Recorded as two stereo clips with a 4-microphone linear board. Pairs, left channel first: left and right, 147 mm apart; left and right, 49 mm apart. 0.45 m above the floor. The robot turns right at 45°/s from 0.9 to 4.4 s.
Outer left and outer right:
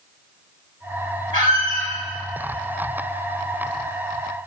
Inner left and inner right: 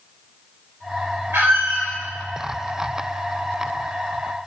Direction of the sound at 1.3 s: 65° right (ahead or behind).